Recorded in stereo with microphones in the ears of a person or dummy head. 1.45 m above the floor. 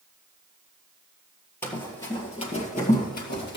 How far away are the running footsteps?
About 1.9 m.